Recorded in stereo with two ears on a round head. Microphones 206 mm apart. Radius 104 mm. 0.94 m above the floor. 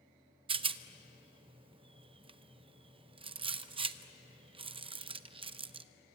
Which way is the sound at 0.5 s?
25° right (ahead or behind).